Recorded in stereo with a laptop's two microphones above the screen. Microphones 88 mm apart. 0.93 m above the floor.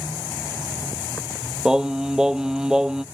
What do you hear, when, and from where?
1.6 s singing: 10° right (ahead or behind)